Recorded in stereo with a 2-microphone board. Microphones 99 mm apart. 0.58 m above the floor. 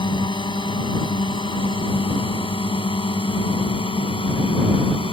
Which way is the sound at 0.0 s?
50° left (ahead or behind).